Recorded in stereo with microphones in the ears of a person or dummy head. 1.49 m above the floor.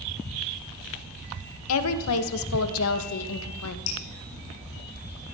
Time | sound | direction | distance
1.7 | a woman speaking | 80° left | 0.9 m
3.9 | dripping | 85° left | 3 m